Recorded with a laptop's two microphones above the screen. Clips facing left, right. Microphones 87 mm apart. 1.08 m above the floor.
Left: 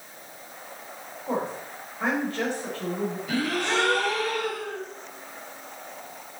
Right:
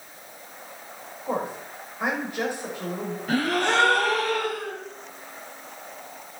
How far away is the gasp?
About 3 m.